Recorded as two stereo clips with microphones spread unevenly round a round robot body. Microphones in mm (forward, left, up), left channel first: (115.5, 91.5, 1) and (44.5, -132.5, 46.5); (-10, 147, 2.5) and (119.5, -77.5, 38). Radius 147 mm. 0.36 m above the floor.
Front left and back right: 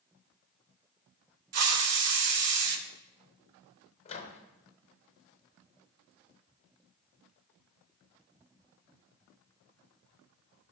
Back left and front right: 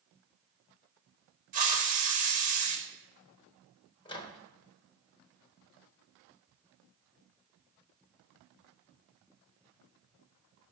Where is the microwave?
75° left, 0.8 m.